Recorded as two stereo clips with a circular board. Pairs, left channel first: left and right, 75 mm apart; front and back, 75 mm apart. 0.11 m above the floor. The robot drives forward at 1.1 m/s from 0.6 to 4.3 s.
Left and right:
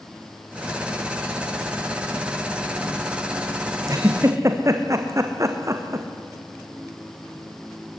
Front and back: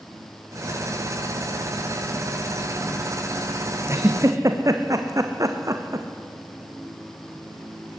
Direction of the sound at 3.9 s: 130° right.